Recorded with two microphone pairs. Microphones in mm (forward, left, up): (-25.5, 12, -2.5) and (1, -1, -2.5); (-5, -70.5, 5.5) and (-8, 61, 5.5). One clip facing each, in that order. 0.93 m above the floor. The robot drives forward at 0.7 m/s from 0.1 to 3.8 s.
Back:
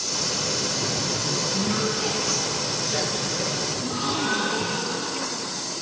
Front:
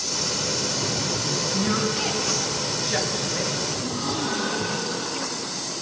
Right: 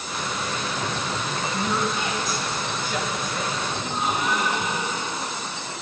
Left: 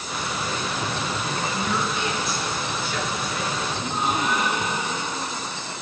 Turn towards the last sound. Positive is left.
turn(degrees=-175)